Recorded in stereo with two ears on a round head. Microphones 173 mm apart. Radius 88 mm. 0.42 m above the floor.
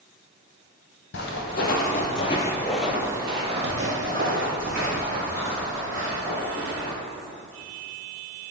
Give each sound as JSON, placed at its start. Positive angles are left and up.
{"t": 1.1, "sound": "footsteps", "side_deg": 65, "distance_m": 0.9}